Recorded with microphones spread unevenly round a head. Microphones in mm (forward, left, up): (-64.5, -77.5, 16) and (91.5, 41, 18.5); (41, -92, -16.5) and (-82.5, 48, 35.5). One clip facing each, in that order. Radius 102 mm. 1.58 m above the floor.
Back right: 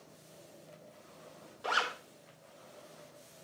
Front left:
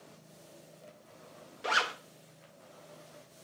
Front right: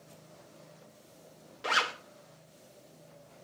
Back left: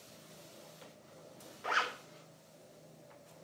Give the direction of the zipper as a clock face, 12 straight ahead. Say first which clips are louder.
Front left 2 dB, front right 4 dB; 12 o'clock.